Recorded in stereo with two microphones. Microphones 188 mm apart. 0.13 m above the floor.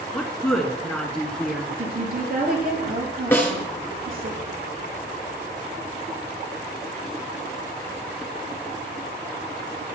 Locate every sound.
0.1 s a woman speaking: 5° left (ahead or behind), 1.6 m
1.8 s a woman speaking: 50° right (ahead or behind), 3 m
3.3 s a snare drum: 10° left (ahead or behind), 2.0 m